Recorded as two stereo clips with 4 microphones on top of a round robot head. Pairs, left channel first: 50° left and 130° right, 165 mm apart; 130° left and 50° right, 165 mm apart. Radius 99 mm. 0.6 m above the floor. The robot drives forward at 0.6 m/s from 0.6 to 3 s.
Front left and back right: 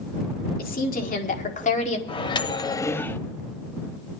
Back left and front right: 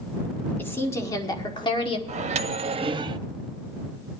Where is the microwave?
5° right, 0.9 m; by 3.2 s 20° right, 0.5 m.